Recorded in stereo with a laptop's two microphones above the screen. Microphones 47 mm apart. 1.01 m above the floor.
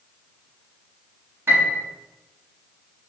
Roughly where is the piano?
Right.